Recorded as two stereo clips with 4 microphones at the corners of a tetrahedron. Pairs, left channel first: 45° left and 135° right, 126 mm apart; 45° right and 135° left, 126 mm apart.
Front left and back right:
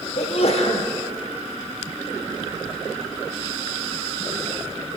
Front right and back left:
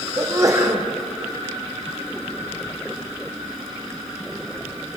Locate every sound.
0.2 s a sneeze: 70° left, 4.5 m